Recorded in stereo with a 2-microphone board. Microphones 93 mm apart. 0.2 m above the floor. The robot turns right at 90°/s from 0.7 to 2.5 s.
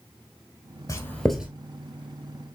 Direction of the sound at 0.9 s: 40° left (ahead or behind).